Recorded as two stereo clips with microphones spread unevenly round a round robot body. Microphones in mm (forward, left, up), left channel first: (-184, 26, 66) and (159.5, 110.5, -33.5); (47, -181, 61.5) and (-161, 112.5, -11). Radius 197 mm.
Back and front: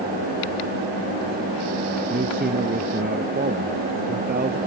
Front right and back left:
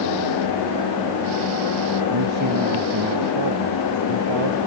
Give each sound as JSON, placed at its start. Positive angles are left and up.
{"t": 2.1, "sound": "a man speaking", "azimuth_deg": 80}